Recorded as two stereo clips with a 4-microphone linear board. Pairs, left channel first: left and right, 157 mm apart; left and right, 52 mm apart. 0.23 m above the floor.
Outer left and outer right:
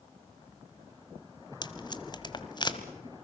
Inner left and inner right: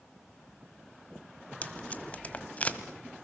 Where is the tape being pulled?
30° left (ahead or behind), 1.5 m.